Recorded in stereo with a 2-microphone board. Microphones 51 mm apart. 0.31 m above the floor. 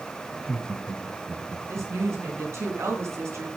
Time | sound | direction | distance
0.3 | laughter | 25° left (ahead or behind) | 2.5 m
1.7 | a woman speaking | 70° right (ahead or behind) | 3 m